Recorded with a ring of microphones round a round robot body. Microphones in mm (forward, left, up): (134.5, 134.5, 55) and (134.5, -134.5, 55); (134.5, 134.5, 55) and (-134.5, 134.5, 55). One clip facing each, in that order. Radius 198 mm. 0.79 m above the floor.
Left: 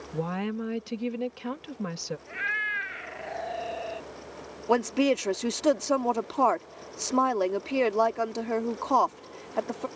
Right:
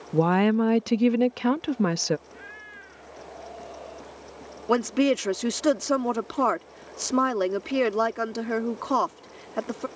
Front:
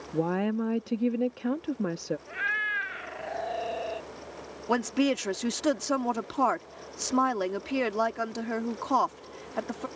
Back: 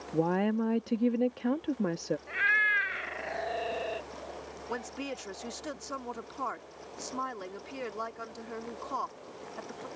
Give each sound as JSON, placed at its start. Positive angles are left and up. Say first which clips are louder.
{"t": 0.1, "sound": "a woman speaking", "louder": "right 10 dB, front 1 dB", "azimuth_deg": -85}
{"t": 2.3, "sound": "a cat meowing", "louder": "left 2 dB, back 1 dB", "azimuth_deg": 125}
{"t": 4.7, "sound": "a woman speaking", "louder": "right 2 dB, front 13 dB", "azimuth_deg": -20}